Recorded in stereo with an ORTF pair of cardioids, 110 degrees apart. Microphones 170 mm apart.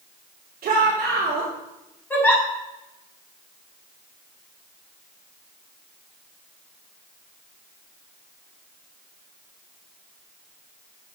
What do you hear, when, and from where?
0.6 s a shout: 65° right, 4 m
2.1 s a giggle: 10° left, 6.5 m